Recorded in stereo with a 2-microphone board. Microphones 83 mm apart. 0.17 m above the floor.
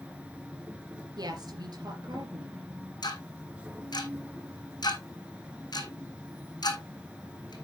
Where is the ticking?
60° left (ahead or behind), 1.9 m.